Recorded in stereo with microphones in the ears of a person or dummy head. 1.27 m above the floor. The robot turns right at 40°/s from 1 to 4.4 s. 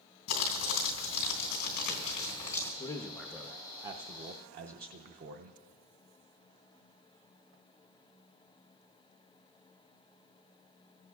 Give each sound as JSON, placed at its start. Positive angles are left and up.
{"t": 0.3, "sound": "crumpling", "azimuth_deg": 95, "distance_m": 3.0}
{"t": 2.8, "sound": "a man speaking", "azimuth_deg": 155, "distance_m": 0.6}